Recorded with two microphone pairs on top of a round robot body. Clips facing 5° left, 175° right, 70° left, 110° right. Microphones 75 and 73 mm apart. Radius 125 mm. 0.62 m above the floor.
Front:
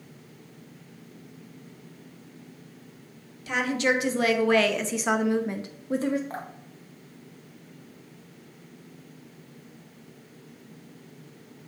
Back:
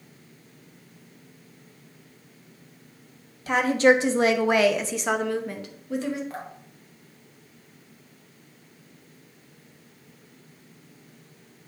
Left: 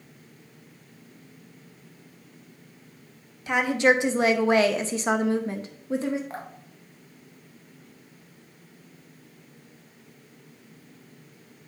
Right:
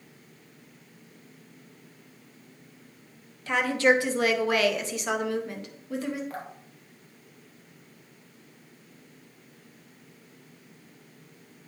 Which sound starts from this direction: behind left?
A woman speaking, at 3.5 s.